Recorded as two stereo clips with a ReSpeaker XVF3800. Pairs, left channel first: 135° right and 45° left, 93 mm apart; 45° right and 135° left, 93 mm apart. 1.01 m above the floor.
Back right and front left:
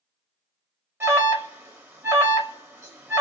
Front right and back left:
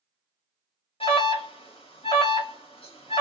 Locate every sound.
1.0 s an alarm: 20° right, 1.0 m